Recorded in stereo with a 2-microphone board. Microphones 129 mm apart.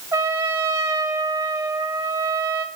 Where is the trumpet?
20° right (ahead or behind), 2.5 m.